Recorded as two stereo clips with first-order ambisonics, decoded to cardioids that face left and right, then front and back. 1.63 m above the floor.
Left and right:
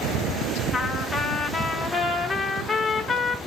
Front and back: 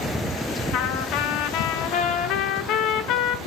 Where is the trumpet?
5° left, 0.6 m.